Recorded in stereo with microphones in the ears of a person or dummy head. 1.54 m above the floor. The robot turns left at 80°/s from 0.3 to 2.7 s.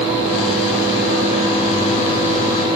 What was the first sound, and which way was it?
Only background noise.